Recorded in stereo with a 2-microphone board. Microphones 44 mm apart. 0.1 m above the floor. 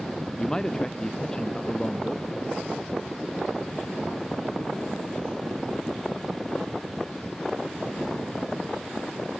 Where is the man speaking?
15° left (ahead or behind).